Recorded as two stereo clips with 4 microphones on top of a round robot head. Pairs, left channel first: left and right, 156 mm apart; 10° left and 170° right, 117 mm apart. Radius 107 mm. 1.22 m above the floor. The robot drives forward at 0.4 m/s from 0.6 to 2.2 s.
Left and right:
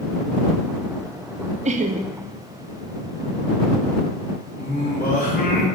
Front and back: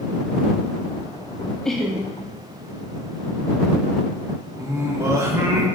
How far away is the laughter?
About 0.5 m.